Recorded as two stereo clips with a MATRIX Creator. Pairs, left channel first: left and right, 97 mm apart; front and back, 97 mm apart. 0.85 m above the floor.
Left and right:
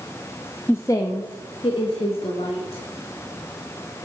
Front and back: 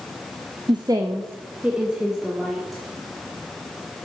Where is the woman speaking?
155° left, 0.7 m; by 2.8 s 90° left, 1.9 m.